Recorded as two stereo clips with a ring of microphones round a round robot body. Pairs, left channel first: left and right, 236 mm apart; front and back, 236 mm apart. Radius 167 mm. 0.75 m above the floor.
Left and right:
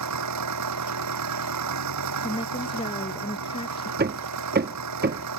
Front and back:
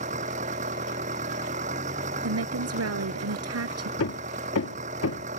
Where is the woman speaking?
165° left.